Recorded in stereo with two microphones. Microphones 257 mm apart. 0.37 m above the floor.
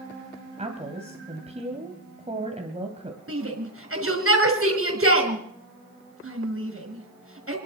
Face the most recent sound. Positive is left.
turn(degrees=-50)  # may be behind; listen again after turning